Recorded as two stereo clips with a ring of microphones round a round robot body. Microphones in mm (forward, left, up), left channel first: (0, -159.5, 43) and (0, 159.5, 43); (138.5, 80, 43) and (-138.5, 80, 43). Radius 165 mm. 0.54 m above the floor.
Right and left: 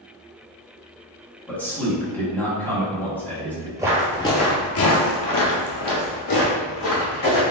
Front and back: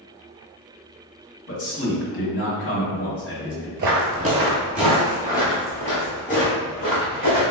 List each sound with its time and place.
1.5 s a man speaking: 5° right, 1.6 m
3.8 s footsteps: 165° left, 0.6 m; by 7.4 s 65° right, 1.8 m